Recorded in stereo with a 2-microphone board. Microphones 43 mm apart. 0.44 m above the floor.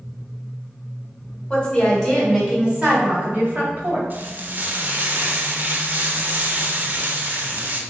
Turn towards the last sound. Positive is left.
turn(degrees=-45)  # may be behind; listen again after turning